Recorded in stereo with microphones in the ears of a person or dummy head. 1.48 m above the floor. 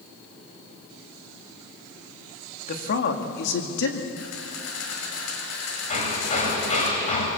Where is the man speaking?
50° left (ahead or behind), 2 m; by 4.1 s 75° left (ahead or behind), 2 m.